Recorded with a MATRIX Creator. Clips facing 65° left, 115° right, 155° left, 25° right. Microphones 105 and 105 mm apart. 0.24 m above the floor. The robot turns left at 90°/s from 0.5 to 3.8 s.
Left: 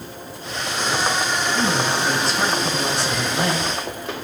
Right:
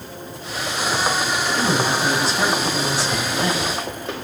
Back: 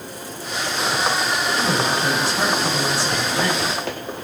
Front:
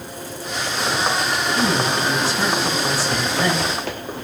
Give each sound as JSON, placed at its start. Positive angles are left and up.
{"t": 1.5, "sound": "a man speaking", "azimuth_deg": -135, "distance_m": 5.5}